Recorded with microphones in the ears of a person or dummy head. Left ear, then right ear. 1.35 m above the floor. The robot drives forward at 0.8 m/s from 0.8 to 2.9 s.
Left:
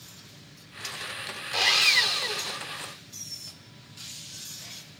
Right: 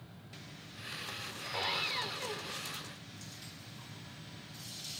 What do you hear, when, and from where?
1.5 s sawing: 65° left (ahead or behind); by 2.6 s 80° left